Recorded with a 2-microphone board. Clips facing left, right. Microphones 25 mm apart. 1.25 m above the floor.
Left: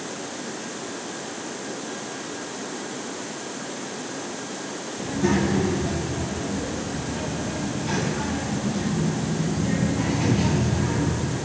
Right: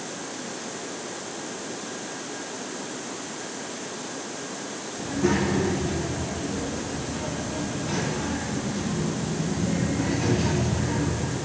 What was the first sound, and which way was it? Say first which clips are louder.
A child speaking: left 1 dB; 15° left (ahead or behind).